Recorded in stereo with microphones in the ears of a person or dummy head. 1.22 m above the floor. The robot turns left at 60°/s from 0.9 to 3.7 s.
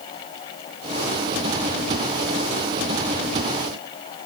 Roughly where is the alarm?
I don't hear an alarm.